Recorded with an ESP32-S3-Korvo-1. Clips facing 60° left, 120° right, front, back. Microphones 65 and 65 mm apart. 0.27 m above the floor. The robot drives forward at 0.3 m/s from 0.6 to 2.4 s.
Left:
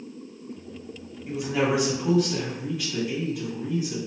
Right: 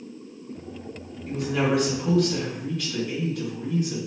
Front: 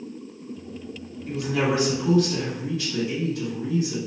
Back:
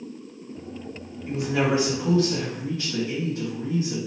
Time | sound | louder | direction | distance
1.3 | a woman speaking | even, back 1 dB | 130° left | 1.3 m